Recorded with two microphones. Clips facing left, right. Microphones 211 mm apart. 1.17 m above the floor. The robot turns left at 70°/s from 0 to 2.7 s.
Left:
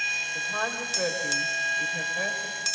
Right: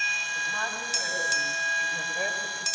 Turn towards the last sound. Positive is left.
turn(degrees=-30)